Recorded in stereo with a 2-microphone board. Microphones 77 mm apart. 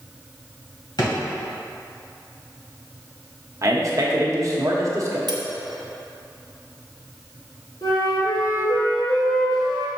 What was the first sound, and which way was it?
A drawer, 60° left (ahead or behind).